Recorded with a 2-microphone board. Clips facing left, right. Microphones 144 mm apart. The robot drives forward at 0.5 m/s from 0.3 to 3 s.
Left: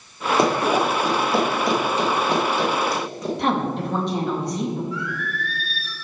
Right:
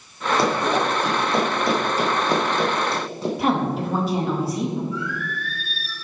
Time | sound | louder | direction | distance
0.4 | running footsteps | left 2 dB | 20° left (ahead or behind) | 2.5 m
3.4 | a woman speaking | right 1 dB | 5° right (ahead or behind) | 2 m
4.9 | singing | even | 75° left (ahead or behind) | 1.8 m